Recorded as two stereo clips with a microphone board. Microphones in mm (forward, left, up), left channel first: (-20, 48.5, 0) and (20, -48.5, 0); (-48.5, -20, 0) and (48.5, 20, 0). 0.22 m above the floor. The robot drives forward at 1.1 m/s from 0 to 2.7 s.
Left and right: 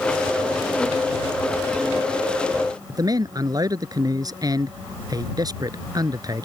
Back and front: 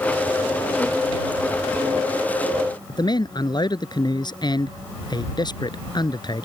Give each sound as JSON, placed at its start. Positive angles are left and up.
{"t": 2.9, "sound": "a man speaking", "azimuth_deg": -115}